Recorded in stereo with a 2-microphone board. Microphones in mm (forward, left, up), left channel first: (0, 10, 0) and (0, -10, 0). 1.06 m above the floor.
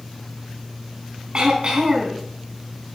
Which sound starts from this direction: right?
Throat clearing, at 1.3 s.